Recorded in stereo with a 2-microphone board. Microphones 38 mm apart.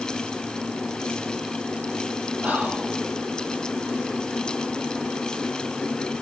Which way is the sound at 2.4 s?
40° right (ahead or behind).